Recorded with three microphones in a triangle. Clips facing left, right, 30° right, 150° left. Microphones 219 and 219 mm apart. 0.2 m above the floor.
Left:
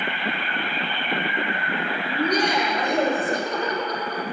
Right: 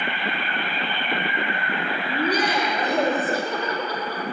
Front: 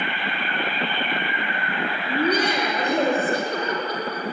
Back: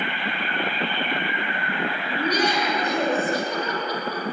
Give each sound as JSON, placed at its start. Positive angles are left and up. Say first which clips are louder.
{"t": 2.1, "sound": "laughter", "louder": "left 1 dB, front 3 dB", "azimuth_deg": -5, "distance_m": 6.5}